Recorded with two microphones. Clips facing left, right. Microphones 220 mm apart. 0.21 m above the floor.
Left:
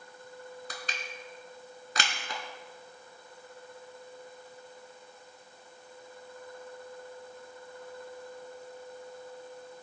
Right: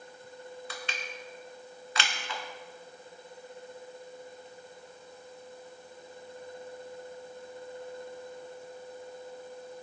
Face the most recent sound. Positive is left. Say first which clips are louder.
# right 1 dB
turn(degrees=45)  # may be behind; listen again after turning